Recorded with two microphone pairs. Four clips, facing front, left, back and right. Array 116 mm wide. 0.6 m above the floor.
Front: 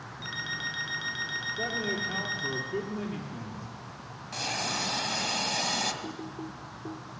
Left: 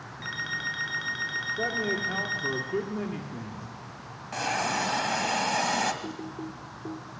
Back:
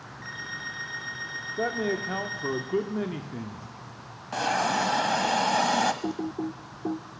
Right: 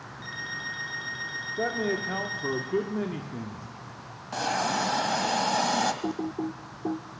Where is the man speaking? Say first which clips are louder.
Right 2 dB, back 6 dB; 175° right, 1.5 m.